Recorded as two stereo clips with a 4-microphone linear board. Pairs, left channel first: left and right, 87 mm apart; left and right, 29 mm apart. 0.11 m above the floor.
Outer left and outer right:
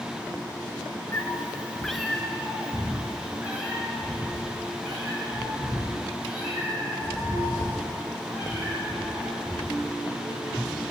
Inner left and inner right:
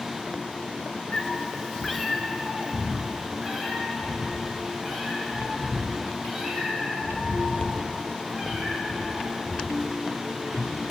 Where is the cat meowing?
30° left (ahead or behind), 1.0 m; by 9.9 s 20° right (ahead or behind), 11.5 m.